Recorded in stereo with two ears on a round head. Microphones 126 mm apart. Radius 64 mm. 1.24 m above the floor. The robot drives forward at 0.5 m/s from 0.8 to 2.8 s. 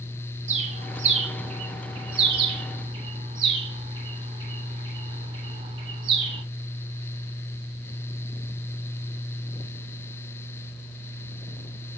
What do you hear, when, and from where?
0.5 s a bird: 55° right (ahead or behind), 2 m; by 6.4 s 35° right (ahead or behind), 3 m